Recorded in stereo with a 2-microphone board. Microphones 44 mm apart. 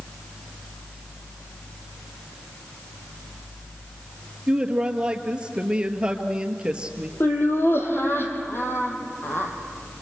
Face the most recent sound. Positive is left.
turn(degrees=60)  # may be behind; listen again after turning